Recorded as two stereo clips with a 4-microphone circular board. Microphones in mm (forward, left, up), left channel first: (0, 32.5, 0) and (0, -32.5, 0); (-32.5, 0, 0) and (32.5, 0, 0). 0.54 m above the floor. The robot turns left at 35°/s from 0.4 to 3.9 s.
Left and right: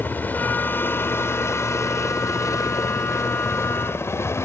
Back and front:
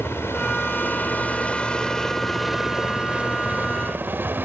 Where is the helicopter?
140° left; by 4.5 s 55° left.